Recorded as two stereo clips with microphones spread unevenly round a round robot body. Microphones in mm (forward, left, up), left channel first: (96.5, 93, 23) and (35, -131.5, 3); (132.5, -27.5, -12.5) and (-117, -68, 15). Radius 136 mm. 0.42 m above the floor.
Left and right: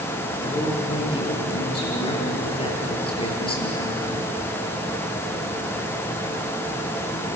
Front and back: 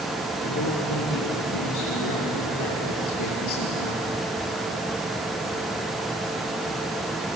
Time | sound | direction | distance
0.4 | a man speaking | 10° left | 8 m